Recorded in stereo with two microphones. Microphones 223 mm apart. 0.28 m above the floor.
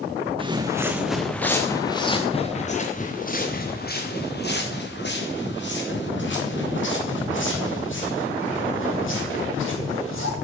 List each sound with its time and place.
0.4 s footsteps: 25° right (ahead or behind), 1.5 m; by 10.3 s 65° left (ahead or behind), 7.5 m